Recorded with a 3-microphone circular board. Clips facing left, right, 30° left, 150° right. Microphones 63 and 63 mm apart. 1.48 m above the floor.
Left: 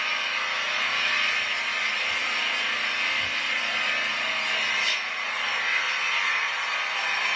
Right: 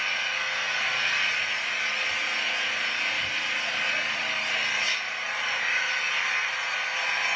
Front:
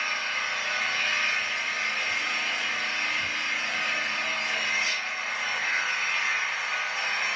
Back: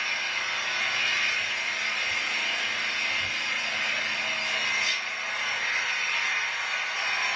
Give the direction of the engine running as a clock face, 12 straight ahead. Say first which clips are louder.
Left 1 dB, front 1 dB; 9 o'clock.